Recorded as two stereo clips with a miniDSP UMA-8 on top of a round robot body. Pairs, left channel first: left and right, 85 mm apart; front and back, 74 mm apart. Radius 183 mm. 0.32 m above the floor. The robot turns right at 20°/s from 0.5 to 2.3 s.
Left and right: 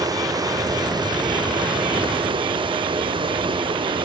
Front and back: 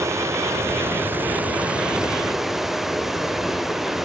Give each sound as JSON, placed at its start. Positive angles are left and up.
{"t": 0.0, "sound": "running water", "azimuth_deg": -130, "distance_m": 0.9}